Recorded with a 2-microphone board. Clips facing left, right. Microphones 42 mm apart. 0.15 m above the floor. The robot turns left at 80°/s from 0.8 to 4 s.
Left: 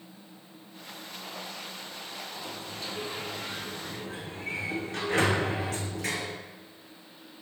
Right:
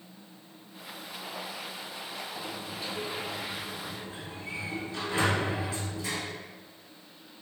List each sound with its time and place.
2.4 s a sliding door: 130° right, 0.6 m; by 6.4 s 100° left, 0.6 m